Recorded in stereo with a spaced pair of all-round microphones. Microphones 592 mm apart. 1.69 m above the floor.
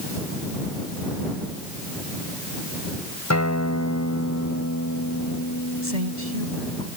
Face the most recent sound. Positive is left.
turn(degrees=-85)